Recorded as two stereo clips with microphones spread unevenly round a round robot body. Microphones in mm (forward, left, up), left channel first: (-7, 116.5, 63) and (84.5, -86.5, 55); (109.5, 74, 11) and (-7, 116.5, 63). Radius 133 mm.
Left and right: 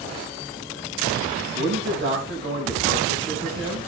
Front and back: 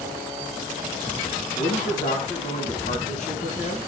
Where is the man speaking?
25° right, 4.5 m.